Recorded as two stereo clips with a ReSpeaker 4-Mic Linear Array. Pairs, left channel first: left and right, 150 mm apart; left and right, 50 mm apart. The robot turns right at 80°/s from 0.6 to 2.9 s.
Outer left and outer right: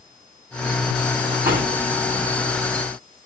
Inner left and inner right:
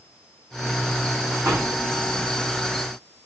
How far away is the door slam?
About 10 m.